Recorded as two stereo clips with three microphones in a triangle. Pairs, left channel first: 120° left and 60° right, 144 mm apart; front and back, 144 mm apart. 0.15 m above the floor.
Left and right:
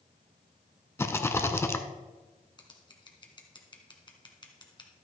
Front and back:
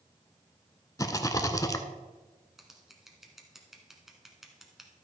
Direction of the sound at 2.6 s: 95° left.